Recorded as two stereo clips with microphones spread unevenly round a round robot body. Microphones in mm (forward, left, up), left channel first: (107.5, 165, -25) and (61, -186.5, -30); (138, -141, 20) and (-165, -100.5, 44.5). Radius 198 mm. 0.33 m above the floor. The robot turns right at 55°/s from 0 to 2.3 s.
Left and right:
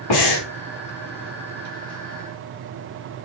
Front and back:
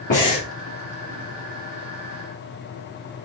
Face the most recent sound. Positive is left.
turn(degrees=-175)